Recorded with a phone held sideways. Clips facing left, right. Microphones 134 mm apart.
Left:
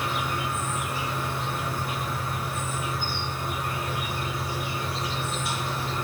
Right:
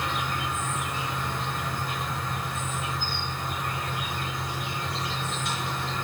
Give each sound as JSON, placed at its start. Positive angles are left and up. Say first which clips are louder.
{"t": 0.0, "sound": "an insect", "louder": "left 1 dB", "side_deg": 5, "distance_m": 1.1}